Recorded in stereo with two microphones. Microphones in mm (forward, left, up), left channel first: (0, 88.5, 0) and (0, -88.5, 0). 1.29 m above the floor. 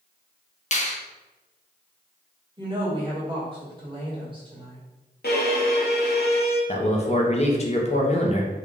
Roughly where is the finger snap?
Left.